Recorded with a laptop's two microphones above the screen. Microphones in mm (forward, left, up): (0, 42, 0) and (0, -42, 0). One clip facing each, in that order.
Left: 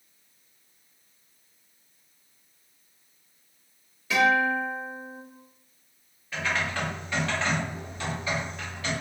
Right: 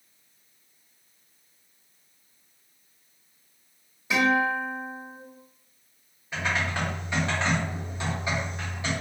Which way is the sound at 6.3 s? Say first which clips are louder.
Right 1 dB; 20° right (ahead or behind).